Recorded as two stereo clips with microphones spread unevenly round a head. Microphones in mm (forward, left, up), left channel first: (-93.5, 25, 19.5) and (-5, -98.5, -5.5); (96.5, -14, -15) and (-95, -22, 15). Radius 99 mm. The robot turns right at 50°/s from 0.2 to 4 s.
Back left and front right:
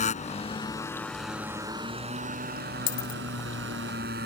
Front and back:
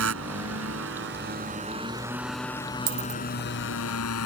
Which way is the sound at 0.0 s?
165° left.